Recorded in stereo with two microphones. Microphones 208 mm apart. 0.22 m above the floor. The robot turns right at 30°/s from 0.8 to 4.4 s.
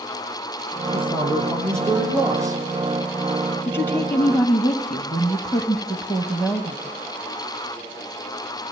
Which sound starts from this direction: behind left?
A man speaking, at 0.9 s.